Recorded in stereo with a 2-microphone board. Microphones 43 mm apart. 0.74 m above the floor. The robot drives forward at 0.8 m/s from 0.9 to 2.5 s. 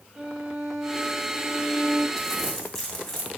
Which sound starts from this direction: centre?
Crumpling, at 2.2 s.